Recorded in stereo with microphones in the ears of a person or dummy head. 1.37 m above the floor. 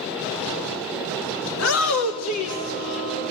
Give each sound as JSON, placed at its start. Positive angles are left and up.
{"t": 1.5, "sound": "a shout", "side_deg": 75, "distance_m": 1.8}